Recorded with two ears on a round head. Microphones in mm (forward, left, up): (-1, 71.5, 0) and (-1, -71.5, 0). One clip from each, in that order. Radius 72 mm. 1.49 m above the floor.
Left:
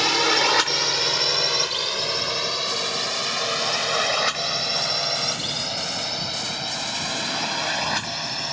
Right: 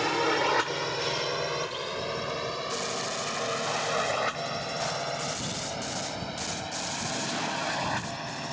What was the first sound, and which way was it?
A drone, 80° left.